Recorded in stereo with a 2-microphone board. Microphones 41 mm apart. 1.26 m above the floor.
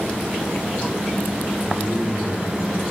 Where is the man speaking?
5° left (ahead or behind), 2.5 m.